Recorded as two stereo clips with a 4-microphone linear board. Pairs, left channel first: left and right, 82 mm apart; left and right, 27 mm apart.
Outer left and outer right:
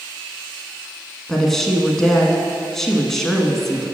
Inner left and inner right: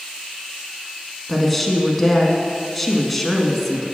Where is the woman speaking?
5° left (ahead or behind), 1.1 m.